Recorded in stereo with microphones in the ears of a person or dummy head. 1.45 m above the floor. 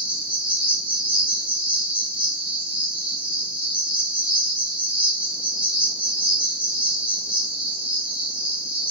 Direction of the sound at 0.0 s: 5° right (ahead or behind).